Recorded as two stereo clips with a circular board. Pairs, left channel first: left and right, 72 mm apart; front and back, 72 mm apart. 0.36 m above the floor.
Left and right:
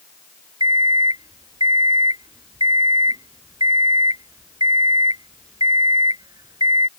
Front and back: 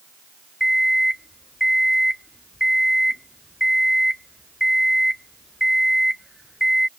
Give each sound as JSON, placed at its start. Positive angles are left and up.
{"t": 0.6, "sound": "an alarm clock", "azimuth_deg": -95}